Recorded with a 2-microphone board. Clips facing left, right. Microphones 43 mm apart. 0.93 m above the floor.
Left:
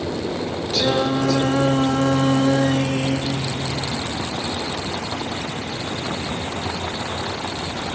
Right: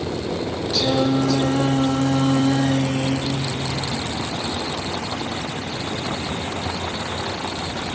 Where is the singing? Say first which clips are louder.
Even; 55° left (ahead or behind), 2 m.